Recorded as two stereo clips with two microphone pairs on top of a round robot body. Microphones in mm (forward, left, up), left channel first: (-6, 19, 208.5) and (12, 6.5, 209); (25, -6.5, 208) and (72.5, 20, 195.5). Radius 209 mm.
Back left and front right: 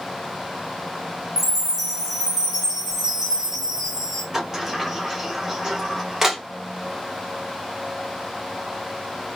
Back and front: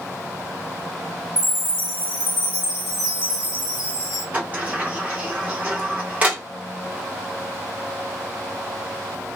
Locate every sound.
1.4 s a chime: 105° right, 0.6 m
4.3 s a sliding door: 30° left, 1.3 m